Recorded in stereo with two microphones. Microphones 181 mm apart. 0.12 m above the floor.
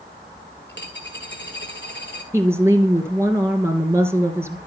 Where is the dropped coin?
85° left, 2.5 m.